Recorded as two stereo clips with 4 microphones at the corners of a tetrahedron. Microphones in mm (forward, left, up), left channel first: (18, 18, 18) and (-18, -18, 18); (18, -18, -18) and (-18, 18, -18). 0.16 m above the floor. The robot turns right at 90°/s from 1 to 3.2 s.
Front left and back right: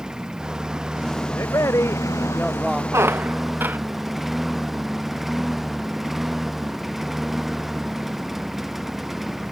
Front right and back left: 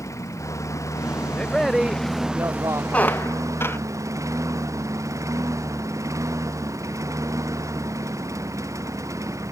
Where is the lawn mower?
60° right; by 9.5 s 140° left.